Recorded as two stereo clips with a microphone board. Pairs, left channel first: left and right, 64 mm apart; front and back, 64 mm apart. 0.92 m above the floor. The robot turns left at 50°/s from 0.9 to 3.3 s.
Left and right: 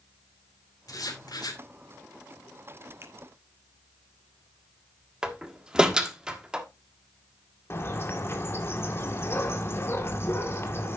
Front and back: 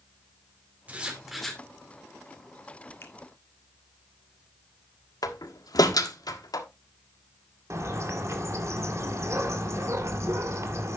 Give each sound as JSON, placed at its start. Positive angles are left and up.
{"t": 0.9, "sound": "writing", "azimuth_deg": 115, "distance_m": 2.0}
{"t": 3.0, "sound": "a finger snap", "azimuth_deg": -45, "distance_m": 1.7}
{"t": 5.2, "sound": "a door slam", "azimuth_deg": -15, "distance_m": 1.3}
{"t": 7.7, "sound": "a bird", "azimuth_deg": 140, "distance_m": 1.9}